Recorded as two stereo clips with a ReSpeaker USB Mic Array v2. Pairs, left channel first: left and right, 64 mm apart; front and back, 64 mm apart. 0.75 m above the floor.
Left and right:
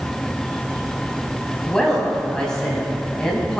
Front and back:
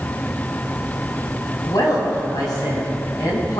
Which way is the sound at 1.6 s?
10° left.